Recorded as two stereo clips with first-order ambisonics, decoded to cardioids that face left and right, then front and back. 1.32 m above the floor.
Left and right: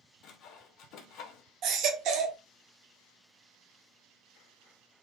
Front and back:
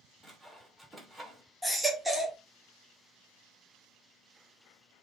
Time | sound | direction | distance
0.2 | sawing | 100° left | 0.5 m
1.6 | a baby crying | 95° right | 0.6 m